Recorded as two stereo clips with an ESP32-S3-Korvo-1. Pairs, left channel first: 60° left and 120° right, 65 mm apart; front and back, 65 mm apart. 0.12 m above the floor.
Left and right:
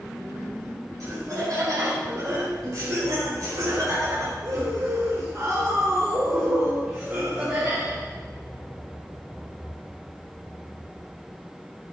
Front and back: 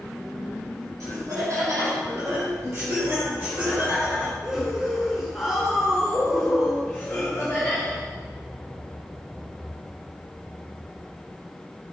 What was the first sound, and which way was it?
Laughter, 150° right.